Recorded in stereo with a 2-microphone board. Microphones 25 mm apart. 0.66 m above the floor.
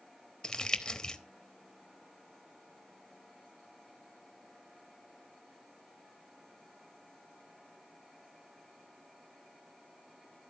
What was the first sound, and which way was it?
Crumpling, 25° left (ahead or behind).